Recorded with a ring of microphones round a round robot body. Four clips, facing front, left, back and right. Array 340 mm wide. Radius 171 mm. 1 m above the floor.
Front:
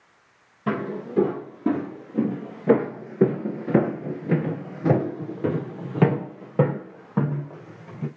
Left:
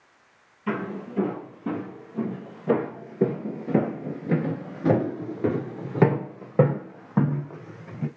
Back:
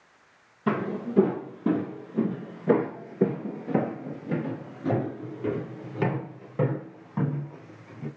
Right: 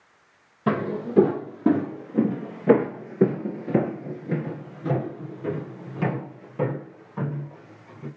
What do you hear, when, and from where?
0.7 s footsteps: 90° right, 2 m; by 8.1 s 65° left, 3 m